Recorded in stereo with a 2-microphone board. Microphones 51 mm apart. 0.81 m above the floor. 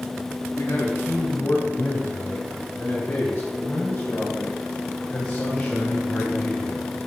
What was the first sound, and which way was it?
A man speaking, 60° left (ahead or behind).